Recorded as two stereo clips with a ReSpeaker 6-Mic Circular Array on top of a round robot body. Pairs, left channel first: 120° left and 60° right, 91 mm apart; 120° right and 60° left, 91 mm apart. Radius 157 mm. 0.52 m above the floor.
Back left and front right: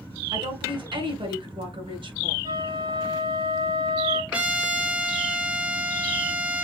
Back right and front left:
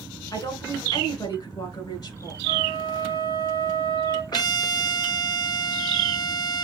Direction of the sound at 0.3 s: 80° right.